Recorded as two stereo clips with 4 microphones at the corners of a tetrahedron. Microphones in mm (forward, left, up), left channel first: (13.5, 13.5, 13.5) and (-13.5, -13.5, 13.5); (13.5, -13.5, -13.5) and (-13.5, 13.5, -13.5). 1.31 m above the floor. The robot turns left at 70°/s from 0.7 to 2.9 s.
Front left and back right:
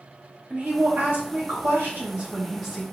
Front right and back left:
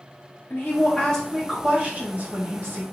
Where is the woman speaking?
90° right, 1.7 m; by 2.8 s 120° left, 1.7 m.